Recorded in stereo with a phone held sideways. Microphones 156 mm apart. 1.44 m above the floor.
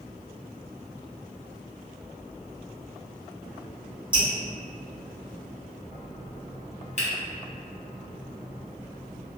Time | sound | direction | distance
4.1 | dripping | 10° right (ahead or behind) | 1.6 m
7.0 | a finger snap | 45° left (ahead or behind) | 0.8 m